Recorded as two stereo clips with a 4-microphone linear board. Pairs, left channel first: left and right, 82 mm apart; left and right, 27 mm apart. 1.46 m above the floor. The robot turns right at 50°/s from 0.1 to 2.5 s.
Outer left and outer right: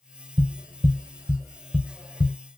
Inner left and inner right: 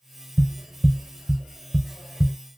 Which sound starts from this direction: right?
Tapping, at 0.4 s.